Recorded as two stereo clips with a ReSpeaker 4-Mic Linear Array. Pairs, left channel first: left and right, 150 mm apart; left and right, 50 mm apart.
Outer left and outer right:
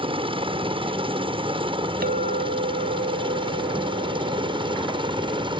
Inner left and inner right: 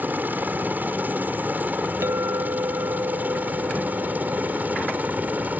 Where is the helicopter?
35° right (ahead or behind).